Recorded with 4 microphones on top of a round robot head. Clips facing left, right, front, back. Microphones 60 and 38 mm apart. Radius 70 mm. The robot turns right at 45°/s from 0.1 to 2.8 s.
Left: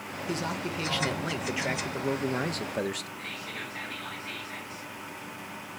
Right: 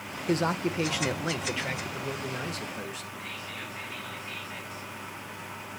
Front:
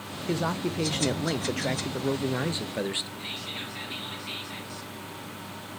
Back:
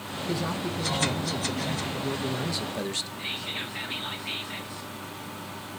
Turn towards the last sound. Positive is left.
turn(degrees=115)